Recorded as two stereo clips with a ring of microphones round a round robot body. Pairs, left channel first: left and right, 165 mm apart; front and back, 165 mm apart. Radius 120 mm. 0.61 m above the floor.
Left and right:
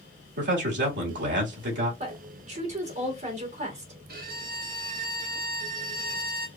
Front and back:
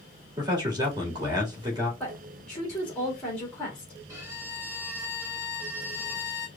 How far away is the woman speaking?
About 1.6 m.